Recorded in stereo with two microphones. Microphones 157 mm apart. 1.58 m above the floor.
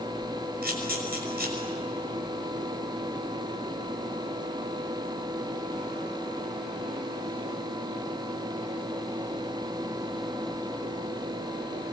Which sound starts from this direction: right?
A camera shutter, at 0.6 s.